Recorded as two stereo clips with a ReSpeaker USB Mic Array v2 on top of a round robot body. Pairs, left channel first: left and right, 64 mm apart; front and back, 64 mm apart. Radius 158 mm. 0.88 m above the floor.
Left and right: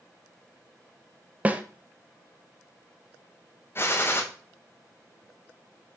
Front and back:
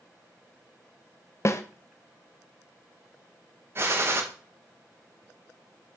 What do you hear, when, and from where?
1.4 s a snare drum: 30° right, 0.9 m
3.8 s a gunshot: 135° left, 1.4 m